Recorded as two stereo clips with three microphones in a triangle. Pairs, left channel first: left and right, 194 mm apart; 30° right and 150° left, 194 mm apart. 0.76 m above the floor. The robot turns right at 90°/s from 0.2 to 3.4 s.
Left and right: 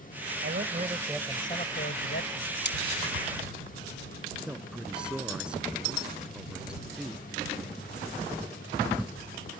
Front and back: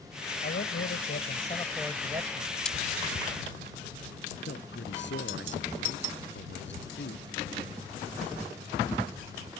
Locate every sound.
0.4 s a man speaking: 70° right; by 2.5 s 120° left
2.6 s cutlery clinking: 55° left; by 2.8 s 65° left
4.5 s a man speaking: 5° right